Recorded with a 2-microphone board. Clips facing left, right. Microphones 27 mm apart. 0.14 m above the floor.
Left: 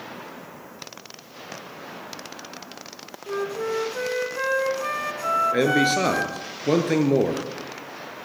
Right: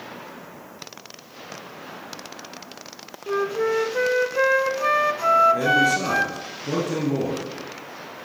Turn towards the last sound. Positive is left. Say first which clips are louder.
# right 1 dB
turn(degrees=55)  # may be behind; listen again after turning